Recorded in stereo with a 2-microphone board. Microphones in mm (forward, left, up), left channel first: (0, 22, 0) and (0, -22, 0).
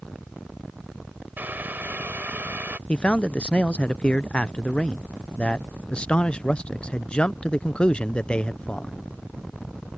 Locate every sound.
1.4 s boiling: 50° right (ahead or behind)
2.9 s a man speaking: 25° left (ahead or behind)